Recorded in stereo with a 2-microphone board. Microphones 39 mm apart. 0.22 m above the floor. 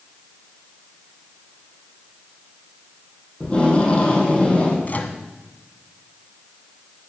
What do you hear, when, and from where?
3.4 s tape being pulled: 30° left (ahead or behind), 7 m
4.8 s a microwave: 45° left (ahead or behind), 1.9 m